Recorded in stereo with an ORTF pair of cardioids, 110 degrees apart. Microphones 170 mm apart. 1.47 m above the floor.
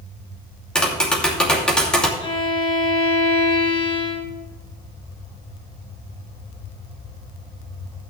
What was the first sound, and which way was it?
Tapping, 5° left.